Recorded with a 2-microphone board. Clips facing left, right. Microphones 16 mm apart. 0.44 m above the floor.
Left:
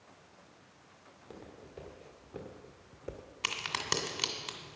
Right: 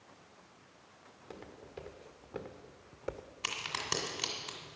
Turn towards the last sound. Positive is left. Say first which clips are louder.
# left 2 dB
turn(degrees=25)  # may be behind; listen again after turning